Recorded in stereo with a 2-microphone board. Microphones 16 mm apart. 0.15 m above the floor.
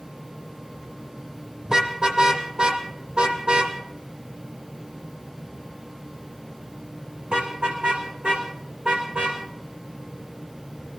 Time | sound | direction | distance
1.6 | a car horn | 40° right (ahead or behind) | 3.5 m